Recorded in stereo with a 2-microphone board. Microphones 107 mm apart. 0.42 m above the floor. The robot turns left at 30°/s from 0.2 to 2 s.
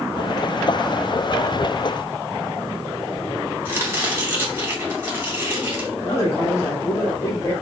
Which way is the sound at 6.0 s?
35° left (ahead or behind).